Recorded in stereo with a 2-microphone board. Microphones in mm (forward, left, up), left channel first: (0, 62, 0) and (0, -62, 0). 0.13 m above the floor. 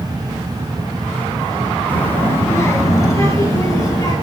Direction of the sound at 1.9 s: 15° left (ahead or behind).